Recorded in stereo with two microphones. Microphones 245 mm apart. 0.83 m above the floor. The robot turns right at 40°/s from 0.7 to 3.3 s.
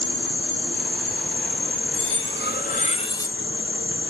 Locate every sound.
0.0 s an insect: 50° right, 2 m; by 4.1 s 55° left, 2 m
1.9 s cutlery clinking: 115° left, 0.6 m; by 3.4 s 170° left, 0.6 m